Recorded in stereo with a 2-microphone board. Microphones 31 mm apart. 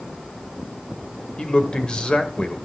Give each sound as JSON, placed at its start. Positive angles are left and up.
{"t": 1.4, "sound": "a man speaking", "side_deg": 30, "distance_m": 1.5}